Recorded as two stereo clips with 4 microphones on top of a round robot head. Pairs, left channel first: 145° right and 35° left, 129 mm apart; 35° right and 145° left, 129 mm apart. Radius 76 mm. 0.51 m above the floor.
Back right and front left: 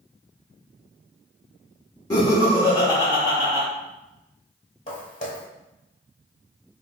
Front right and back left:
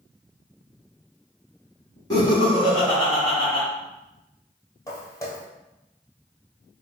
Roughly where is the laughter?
Right.